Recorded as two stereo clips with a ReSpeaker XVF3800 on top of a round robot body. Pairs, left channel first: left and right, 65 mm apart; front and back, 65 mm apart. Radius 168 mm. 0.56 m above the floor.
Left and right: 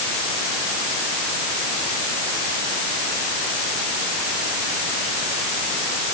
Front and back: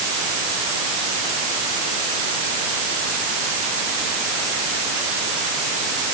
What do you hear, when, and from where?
Only background noise.